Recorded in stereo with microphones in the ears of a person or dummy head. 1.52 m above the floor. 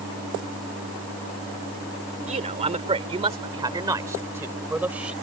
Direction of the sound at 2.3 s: 35° right (ahead or behind).